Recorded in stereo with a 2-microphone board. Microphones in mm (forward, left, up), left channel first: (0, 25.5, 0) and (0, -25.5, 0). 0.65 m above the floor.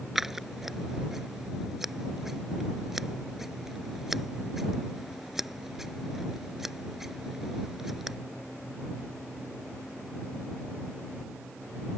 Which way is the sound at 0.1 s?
5° right (ahead or behind).